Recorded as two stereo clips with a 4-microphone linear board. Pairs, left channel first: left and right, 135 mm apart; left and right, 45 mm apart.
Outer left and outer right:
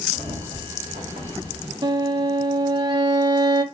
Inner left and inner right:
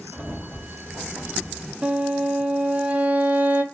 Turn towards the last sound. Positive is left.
turn(degrees=-30)  # may be behind; listen again after turning